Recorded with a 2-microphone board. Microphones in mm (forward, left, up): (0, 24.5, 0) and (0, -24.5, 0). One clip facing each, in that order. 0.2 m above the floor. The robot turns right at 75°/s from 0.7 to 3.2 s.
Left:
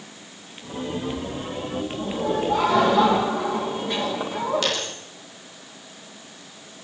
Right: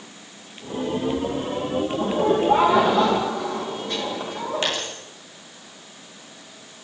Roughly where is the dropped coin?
Right.